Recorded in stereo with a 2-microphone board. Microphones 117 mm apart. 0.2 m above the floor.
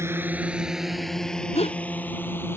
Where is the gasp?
60° left (ahead or behind).